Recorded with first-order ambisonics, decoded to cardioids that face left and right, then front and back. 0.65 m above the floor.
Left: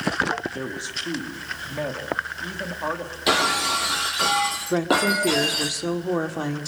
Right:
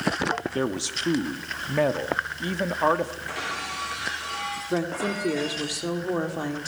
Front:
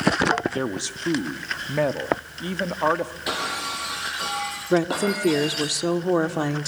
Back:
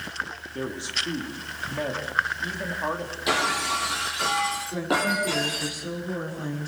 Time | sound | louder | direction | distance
0.6 | a man speaking | right 2 dB, even | 45° right | 1.1 m
3.3 | breaking glass | left 10 dB, back 5 dB | 95° left | 5 m
4.7 | a woman speaking | left 7 dB, front 6 dB | 10° left | 1.8 m